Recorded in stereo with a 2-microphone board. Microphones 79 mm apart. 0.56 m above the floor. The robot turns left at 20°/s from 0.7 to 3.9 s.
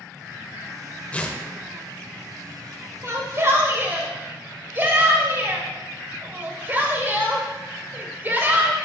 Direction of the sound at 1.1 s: 20° left (ahead or behind).